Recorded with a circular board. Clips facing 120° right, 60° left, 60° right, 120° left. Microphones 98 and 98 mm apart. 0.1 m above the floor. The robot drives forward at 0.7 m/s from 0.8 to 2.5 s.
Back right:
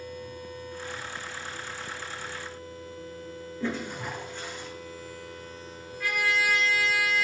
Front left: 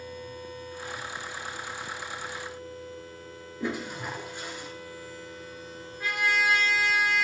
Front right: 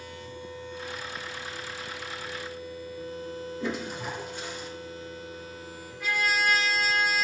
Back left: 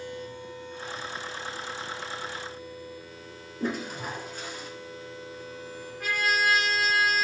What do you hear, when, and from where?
3.6 s a toilet flushing: 130° left, 1.8 m
6.0 s a trumpet: 115° left, 1.8 m